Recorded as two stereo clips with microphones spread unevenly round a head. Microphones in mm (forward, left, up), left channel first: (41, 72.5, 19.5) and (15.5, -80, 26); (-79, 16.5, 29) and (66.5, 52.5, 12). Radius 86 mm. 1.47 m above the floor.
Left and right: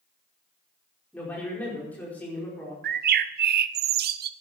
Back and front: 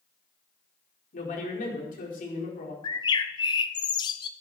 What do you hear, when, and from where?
1.1 s a man speaking: 160° left, 5 m
2.8 s a bird: 100° right, 0.6 m